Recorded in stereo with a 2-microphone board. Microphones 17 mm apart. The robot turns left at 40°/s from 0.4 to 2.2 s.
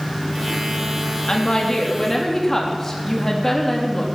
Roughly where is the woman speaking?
Ahead left.